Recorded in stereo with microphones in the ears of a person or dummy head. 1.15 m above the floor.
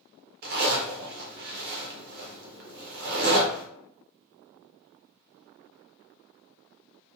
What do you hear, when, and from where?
0.4 s a zipper: 45° right (ahead or behind), 0.6 m